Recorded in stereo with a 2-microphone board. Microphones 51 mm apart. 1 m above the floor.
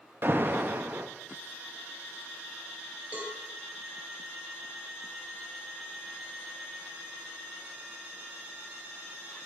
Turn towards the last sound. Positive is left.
turn(degrees=-35)  # may be behind; listen again after turning